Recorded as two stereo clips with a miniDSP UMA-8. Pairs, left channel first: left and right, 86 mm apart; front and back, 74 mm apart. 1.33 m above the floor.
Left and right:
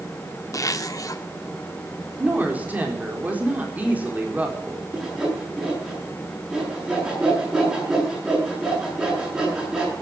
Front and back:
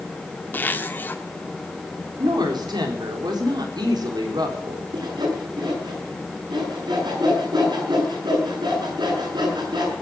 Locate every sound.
0.5 s a zipper: 55° left, 1.2 m
2.2 s a woman speaking: 160° right, 4 m
4.9 s sawing: 170° right, 8.5 m